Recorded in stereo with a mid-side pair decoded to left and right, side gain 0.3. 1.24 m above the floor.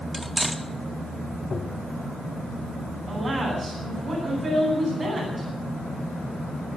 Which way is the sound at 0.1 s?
15° right.